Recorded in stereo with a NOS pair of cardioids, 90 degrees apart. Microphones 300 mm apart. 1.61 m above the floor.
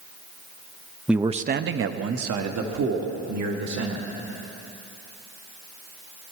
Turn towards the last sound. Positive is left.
turn(degrees=-70)